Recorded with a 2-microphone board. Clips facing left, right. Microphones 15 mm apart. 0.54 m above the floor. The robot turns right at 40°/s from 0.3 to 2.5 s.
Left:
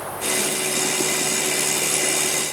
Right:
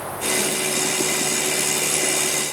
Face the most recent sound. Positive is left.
No sound to turn to.